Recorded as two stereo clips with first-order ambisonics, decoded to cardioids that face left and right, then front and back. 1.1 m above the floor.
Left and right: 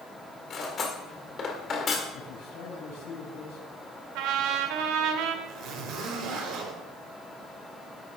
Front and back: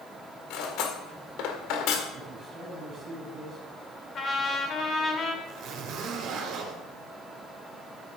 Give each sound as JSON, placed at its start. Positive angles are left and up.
{"t": 0.5, "sound": "cutlery clinking", "azimuth_deg": 25, "distance_m": 1.8}
{"t": 2.1, "sound": "a man speaking", "azimuth_deg": 95, "distance_m": 6.0}
{"t": 4.2, "sound": "a trumpet", "azimuth_deg": -65, "distance_m": 1.9}
{"t": 5.5, "sound": "a zipper", "azimuth_deg": -135, "distance_m": 4.0}